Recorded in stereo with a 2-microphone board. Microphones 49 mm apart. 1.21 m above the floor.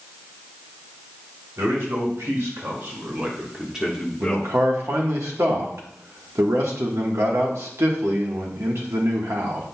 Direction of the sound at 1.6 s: 75° right (ahead or behind).